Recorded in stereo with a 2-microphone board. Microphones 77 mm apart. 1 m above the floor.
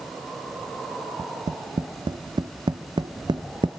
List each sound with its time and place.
1.2 s tapping: 75° right (ahead or behind), 0.6 m